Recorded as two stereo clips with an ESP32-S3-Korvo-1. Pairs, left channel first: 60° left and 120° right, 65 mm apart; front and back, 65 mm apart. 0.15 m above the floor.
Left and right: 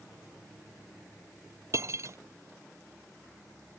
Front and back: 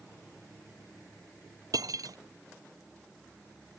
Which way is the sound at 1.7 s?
160° right.